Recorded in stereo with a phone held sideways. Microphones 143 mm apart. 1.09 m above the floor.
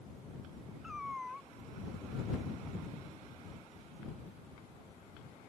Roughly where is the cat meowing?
Centre.